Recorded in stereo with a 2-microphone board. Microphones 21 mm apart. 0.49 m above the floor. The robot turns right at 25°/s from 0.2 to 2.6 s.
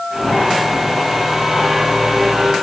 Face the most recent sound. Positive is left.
No sound to turn to.